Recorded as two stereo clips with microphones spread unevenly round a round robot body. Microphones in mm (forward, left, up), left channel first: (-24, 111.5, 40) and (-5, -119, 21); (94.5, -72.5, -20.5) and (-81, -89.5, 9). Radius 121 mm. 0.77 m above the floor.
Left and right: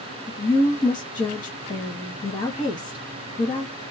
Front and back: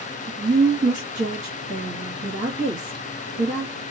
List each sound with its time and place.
0.3 s a woman speaking: 140° left, 1.2 m